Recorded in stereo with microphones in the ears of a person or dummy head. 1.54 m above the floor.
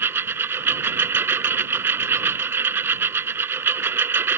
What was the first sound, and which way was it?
A lawn mower, 15° right (ahead or behind).